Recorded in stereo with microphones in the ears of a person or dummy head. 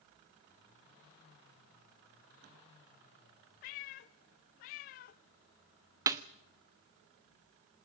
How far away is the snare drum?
About 1.2 m.